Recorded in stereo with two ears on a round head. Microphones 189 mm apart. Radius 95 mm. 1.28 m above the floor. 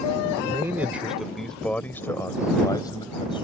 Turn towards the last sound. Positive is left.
turn(degrees=25)  # may be behind; listen again after turning